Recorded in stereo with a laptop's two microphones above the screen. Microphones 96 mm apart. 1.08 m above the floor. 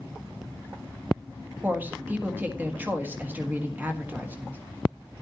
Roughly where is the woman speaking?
Centre.